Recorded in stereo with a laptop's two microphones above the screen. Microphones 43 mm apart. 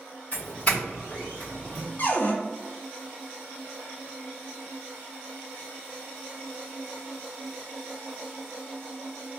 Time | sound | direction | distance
0.3 | a doorbell | 25° left (ahead or behind) | 1.4 m
2.0 | a cupboard door | 45° left (ahead or behind) | 0.7 m